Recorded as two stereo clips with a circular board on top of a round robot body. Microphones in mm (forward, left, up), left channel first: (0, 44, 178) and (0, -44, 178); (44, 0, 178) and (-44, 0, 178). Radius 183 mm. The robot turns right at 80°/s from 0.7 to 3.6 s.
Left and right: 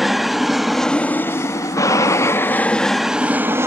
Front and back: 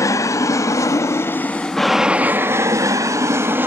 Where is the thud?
I don't hear a thud.